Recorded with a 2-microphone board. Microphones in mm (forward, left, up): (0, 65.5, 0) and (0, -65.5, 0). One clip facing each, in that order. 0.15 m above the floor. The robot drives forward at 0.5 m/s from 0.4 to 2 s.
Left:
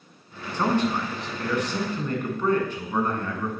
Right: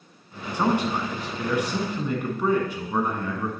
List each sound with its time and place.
0.5 s a man speaking: 10° right (ahead or behind), 1.2 m